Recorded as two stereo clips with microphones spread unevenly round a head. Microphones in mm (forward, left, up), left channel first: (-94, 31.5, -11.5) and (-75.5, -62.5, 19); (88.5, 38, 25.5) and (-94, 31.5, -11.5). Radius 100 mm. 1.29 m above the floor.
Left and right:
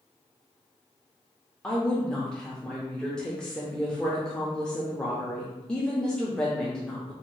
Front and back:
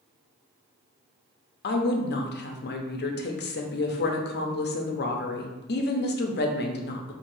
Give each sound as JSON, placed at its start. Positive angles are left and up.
{"t": 1.6, "sound": "a woman speaking", "azimuth_deg": 30, "distance_m": 0.8}